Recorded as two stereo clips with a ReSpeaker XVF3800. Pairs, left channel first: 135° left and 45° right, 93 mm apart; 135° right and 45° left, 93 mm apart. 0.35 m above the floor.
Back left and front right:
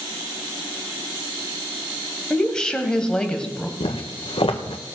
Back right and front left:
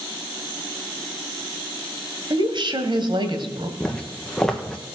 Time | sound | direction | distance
2.3 | a woman speaking | 55° left | 1.8 m
3.8 | footsteps | 140° left | 1.6 m